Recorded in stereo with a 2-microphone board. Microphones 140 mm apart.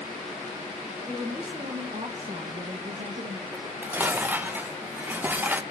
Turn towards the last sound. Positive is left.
turn(degrees=-15)  # may be behind; listen again after turning